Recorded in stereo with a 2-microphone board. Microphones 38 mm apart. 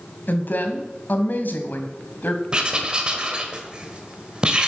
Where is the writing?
25° right (ahead or behind), 1.5 m.